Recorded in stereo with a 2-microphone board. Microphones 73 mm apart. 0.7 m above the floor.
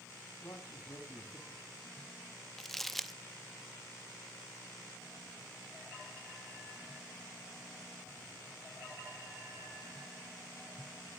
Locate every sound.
0.4 s a man speaking: 50° left (ahead or behind), 4.5 m
2.6 s crumpling: 5° left (ahead or behind), 0.8 m